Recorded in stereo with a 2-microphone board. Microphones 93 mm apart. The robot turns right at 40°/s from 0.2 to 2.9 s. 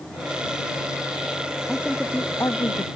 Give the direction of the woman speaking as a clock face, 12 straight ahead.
12 o'clock.